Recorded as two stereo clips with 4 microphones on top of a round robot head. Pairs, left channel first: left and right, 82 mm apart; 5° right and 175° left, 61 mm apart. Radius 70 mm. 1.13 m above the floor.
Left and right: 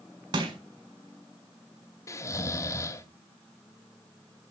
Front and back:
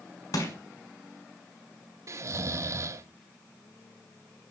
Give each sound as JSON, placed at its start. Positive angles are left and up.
{"t": 0.3, "sound": "crushing", "azimuth_deg": -45, "distance_m": 6.0}
{"t": 2.1, "sound": "snoring", "azimuth_deg": 140, "distance_m": 2.0}